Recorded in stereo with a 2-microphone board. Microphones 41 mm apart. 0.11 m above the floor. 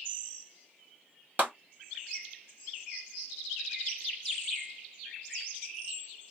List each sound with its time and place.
1.4 s a clap: 40° right (ahead or behind), 1.7 m